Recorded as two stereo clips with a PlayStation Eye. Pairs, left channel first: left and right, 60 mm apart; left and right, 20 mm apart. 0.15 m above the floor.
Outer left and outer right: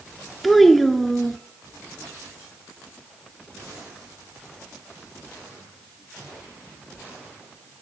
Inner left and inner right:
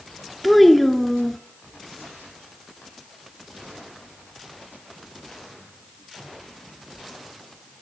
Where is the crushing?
I don't hear crushing.